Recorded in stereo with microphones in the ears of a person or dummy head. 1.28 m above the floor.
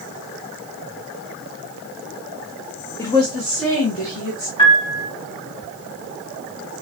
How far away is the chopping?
I don't hear chopping.